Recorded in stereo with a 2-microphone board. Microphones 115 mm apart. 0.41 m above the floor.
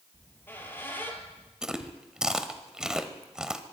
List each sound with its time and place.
0.1 s a squeak: 20° left (ahead or behind), 3 m
1.6 s chewing: 5° right (ahead or behind), 1.4 m